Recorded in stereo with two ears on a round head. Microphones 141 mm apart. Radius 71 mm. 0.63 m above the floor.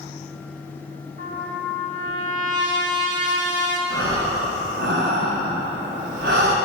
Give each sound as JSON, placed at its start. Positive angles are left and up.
{"t": 1.2, "sound": "a trumpet", "side_deg": -65, "distance_m": 2.0}
{"t": 3.9, "sound": "breathing", "side_deg": -80, "distance_m": 3.0}